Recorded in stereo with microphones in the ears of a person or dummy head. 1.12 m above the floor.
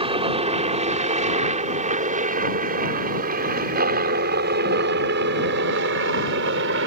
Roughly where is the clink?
I don't hear a clink.